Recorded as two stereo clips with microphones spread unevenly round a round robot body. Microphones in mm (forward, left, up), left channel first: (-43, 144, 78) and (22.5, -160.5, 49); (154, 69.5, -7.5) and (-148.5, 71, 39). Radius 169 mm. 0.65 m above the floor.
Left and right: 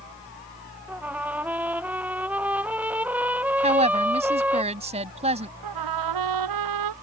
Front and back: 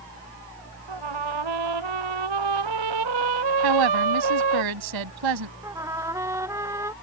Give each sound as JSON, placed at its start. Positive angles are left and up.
{"t": 0.9, "sound": "a trumpet", "azimuth_deg": -165}
{"t": 3.6, "sound": "a woman speaking", "azimuth_deg": -150}
{"t": 5.6, "sound": "a trumpet", "azimuth_deg": -100}